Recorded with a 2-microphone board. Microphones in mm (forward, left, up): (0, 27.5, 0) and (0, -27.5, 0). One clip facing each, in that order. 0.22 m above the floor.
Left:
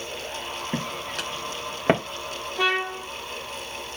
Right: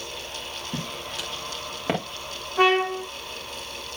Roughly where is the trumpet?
Right.